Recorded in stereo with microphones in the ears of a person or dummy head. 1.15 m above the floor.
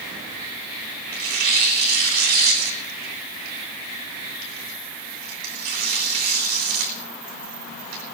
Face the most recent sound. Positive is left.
turn(degrees=-50)  # may be behind; listen again after turning